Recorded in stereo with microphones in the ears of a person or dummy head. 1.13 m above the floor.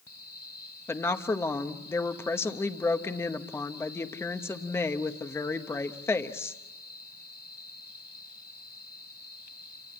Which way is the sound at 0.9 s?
10° left (ahead or behind).